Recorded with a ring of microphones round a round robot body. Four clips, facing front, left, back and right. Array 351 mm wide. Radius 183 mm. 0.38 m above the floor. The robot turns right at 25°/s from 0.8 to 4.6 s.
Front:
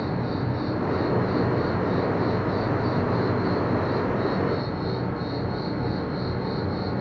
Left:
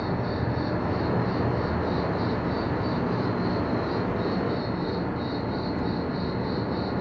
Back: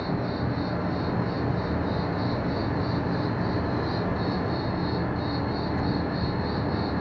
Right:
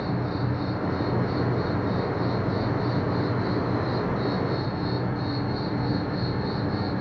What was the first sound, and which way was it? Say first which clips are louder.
An insect: even, front 1 dB; 100° left.